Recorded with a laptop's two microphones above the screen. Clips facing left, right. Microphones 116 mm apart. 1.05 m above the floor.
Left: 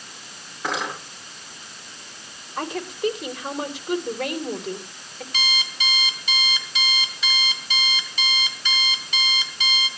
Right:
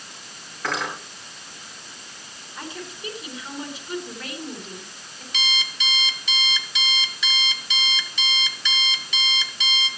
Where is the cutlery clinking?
20° left (ahead or behind), 8.5 m.